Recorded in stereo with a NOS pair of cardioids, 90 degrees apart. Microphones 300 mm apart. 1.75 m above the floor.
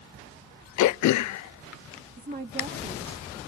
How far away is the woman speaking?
About 2.5 m.